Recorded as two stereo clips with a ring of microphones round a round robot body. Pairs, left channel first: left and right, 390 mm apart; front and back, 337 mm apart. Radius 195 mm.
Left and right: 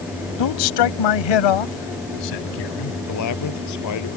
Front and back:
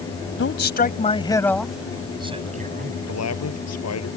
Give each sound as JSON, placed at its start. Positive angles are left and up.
{"t": 0.4, "sound": "a man speaking", "azimuth_deg": 50}
{"t": 3.1, "sound": "a man speaking", "azimuth_deg": 45}